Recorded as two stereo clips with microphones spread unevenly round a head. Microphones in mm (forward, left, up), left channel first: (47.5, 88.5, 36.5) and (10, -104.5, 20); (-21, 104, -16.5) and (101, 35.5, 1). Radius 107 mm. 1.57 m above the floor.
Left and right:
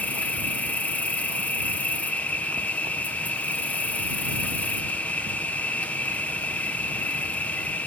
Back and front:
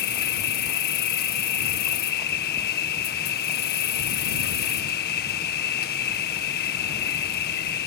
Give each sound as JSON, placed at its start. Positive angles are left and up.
{"t": 0.0, "sound": "an insect", "azimuth_deg": 165}